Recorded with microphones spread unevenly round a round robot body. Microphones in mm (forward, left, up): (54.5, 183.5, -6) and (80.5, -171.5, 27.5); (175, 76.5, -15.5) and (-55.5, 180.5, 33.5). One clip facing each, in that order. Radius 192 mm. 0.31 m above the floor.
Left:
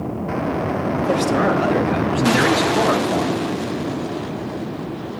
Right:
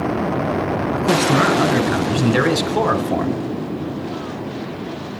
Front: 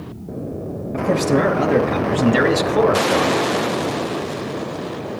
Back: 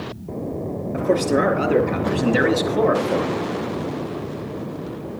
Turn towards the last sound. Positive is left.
turn(degrees=-55)